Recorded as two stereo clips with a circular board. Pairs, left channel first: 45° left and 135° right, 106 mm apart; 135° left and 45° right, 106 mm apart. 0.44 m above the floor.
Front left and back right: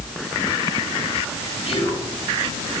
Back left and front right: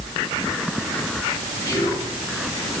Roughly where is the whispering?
Left.